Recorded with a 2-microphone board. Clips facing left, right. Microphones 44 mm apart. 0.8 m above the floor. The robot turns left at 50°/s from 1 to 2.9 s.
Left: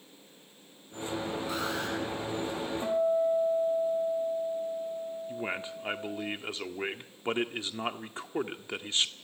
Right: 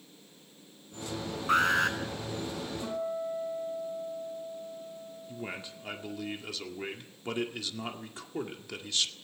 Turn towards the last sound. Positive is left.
turn(degrees=30)  # may be behind; listen again after turning